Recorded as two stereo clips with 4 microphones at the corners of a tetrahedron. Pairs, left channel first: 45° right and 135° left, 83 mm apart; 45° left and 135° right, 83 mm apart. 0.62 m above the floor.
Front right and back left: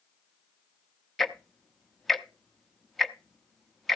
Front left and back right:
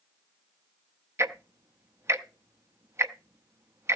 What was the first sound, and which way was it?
Ticking, 130° right.